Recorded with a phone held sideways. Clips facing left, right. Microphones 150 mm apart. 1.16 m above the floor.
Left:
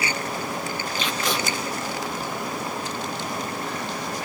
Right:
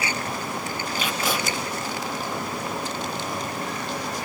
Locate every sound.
1.0 s tape being pulled: 5° right (ahead or behind), 5 m